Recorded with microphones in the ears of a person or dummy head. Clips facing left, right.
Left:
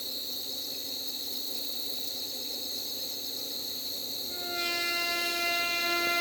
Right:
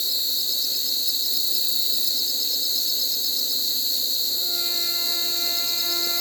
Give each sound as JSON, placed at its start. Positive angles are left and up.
{"t": 0.0, "sound": "an insect", "side_deg": -35, "distance_m": 0.7}